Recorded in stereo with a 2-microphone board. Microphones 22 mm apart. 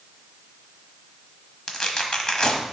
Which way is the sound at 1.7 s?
35° left (ahead or behind).